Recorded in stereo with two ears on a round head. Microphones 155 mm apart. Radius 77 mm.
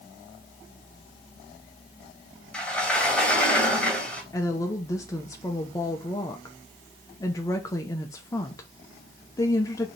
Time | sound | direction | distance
2.5 | a sliding door | 5° left (ahead or behind) | 2.5 m
4.3 | a woman speaking | 20° left (ahead or behind) | 0.9 m